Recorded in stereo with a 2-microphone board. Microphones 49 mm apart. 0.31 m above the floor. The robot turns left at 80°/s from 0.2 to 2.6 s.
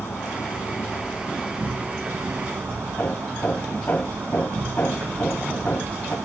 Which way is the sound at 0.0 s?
95° left.